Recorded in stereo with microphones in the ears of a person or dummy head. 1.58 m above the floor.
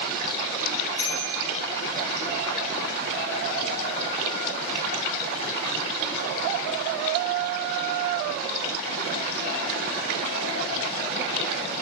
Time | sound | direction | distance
1.0 | a bicycle bell | 20° right (ahead or behind) | 8 m